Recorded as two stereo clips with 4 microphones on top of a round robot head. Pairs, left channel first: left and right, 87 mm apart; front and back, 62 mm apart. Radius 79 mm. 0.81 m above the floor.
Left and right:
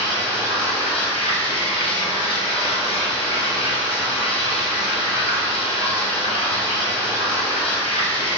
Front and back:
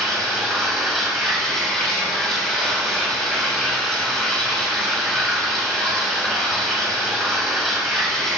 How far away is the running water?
About 1.1 m.